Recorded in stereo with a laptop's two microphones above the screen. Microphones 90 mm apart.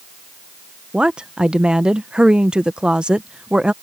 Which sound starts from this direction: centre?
A woman speaking, at 0.9 s.